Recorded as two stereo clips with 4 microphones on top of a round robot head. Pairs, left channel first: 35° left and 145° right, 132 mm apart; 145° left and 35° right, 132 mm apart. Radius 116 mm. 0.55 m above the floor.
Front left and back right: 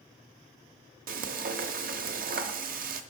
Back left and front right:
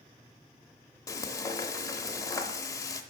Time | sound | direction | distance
1.1 | frying | 150° right | 0.7 m